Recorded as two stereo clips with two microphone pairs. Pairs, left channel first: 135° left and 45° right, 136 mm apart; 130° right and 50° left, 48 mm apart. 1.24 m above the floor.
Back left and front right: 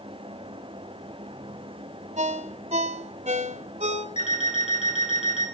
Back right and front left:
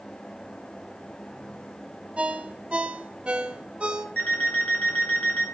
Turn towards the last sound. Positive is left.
turn(degrees=170)